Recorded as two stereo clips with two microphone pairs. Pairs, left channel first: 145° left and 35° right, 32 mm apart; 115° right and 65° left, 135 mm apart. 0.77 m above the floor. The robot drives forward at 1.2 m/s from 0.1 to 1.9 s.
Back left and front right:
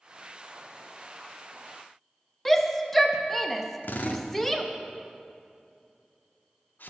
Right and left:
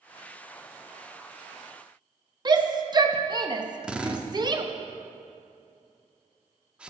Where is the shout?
65° left, 0.7 m.